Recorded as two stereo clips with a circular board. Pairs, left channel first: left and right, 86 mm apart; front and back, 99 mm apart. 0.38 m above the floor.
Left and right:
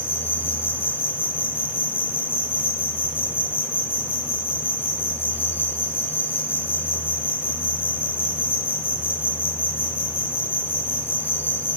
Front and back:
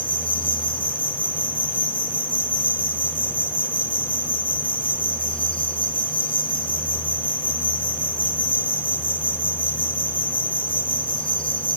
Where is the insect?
25° left, 6.5 m.